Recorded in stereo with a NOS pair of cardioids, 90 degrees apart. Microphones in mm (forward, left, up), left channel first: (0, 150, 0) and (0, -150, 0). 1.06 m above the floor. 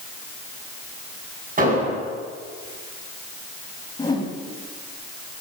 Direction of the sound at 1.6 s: 30° right.